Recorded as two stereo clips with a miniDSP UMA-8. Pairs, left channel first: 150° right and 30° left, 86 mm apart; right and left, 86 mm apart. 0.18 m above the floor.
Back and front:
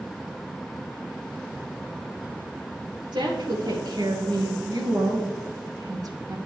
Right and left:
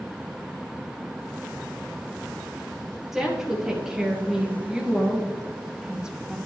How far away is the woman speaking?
About 3.5 m.